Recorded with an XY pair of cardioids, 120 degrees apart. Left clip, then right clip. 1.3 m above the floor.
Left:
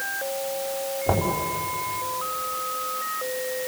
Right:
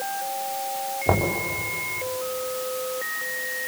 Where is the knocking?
25° right, 4 m.